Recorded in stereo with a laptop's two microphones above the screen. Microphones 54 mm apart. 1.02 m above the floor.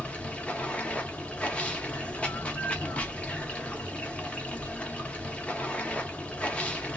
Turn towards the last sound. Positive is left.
turn(degrees=25)  # may be behind; listen again after turning